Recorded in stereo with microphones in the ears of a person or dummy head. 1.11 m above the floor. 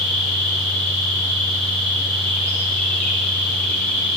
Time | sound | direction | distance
0.0 | an insect | 5° left (ahead or behind) | 5.5 m